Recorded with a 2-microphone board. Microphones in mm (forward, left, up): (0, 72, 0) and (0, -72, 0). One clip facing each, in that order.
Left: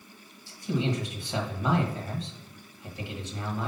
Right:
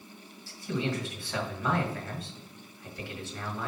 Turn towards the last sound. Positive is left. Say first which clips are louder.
# left 3 dB
turn(degrees=20)  # may be behind; listen again after turning